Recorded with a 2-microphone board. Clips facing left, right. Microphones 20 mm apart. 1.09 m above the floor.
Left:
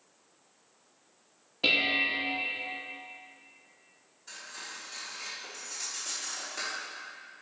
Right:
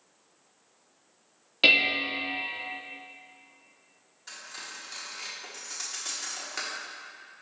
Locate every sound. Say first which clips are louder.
1.6 s dishes clattering: right 4 dB; 75° right (ahead or behind), 0.9 m
4.3 s cutlery clinking: right 1 dB; 40° right (ahead or behind), 1.2 m